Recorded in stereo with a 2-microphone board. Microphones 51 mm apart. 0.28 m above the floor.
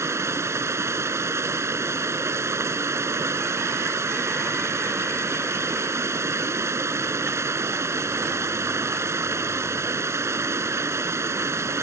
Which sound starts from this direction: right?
Running water, at 0.0 s.